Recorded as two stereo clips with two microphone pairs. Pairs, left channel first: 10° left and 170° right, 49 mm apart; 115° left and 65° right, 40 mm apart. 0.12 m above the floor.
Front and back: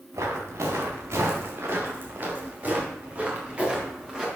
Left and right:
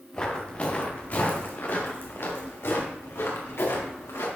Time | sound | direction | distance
0.1 | footsteps | straight behind | 4 m